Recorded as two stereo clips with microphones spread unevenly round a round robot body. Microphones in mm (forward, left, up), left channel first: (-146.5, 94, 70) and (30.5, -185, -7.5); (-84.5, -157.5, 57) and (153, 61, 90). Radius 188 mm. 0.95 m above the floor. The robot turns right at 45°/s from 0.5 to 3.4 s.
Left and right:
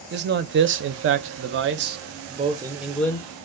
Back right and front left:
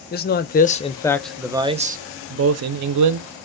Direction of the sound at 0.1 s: 90° right.